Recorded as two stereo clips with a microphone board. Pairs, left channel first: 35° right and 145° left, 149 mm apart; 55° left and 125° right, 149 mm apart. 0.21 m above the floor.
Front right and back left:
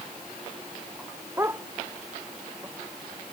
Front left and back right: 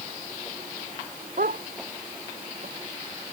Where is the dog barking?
140° right.